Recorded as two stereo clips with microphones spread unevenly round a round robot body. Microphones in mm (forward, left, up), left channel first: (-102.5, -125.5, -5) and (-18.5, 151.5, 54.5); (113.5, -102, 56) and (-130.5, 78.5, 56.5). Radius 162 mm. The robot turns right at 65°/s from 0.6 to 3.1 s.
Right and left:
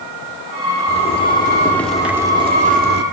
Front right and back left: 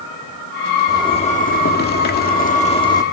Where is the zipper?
105° right, 1.5 m; by 3.0 s 35° left, 1.5 m.